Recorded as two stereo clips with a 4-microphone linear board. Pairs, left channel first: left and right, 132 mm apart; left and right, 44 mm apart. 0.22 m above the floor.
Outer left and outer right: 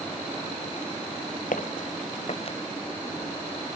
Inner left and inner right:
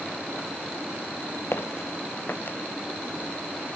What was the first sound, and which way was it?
Footsteps, 80° left.